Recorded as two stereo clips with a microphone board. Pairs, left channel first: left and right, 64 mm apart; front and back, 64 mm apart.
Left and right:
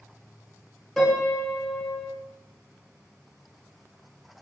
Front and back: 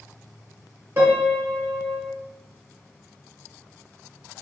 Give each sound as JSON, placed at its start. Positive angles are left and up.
{"t": 1.0, "sound": "a piano", "azimuth_deg": 170, "distance_m": 1.4}